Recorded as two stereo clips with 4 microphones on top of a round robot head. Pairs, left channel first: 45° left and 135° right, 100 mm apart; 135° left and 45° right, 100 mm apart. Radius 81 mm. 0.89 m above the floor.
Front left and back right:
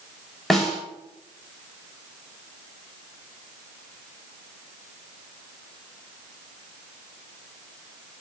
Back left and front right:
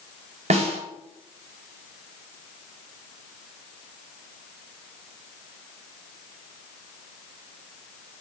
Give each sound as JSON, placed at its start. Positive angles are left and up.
{"t": 0.5, "sound": "a snare drum", "azimuth_deg": -40, "distance_m": 4.0}